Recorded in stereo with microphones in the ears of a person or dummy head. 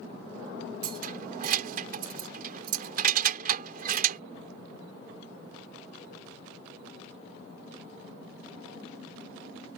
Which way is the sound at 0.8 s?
55° right (ahead or behind).